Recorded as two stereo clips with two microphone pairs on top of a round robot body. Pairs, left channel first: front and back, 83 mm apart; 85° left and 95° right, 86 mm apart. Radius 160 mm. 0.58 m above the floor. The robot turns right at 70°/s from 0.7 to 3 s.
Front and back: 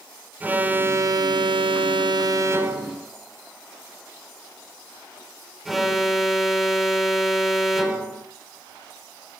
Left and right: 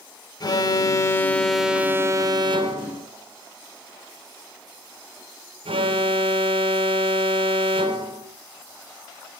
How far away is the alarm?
About 3.5 m.